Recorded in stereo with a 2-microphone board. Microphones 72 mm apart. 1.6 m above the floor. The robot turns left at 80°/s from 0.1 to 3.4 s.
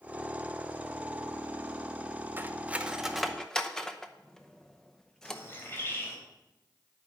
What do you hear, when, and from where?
2.4 s cutlery clinking: 25° right (ahead or behind), 0.7 m; by 5.4 s 10° left (ahead or behind), 0.7 m
5.2 s a bird: 30° left (ahead or behind), 3 m